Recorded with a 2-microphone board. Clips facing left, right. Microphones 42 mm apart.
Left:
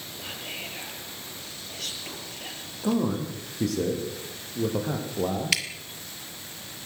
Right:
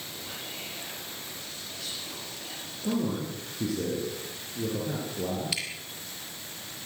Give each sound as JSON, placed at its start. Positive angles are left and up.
{"t": 0.2, "sound": "whispering", "side_deg": 65, "distance_m": 6.0}
{"t": 2.8, "sound": "a man speaking", "side_deg": 65, "distance_m": 6.5}
{"t": 5.5, "sound": "dripping", "side_deg": 75, "distance_m": 1.4}